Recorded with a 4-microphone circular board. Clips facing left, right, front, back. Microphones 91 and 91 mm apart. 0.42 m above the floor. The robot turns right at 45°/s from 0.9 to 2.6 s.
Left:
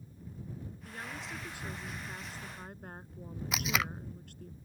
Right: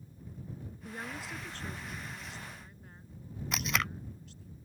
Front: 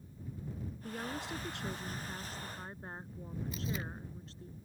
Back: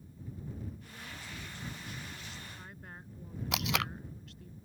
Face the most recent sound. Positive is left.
turn(degrees=180)